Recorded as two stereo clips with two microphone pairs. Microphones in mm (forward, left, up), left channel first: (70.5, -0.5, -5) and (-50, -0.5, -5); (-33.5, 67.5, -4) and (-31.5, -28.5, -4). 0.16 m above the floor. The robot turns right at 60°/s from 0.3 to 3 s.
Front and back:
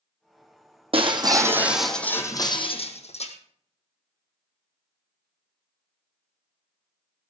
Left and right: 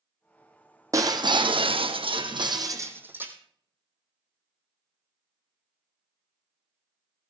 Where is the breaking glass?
145° right, 1.9 m; by 3.4 s 20° right, 1.9 m.